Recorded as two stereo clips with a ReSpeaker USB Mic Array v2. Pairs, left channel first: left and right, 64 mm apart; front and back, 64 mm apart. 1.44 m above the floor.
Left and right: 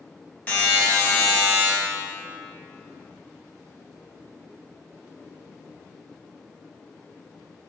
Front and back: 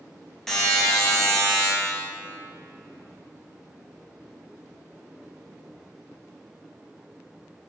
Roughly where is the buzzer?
Left.